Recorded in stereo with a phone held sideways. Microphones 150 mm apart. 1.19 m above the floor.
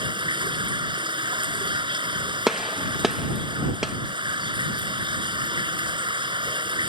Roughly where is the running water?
Right.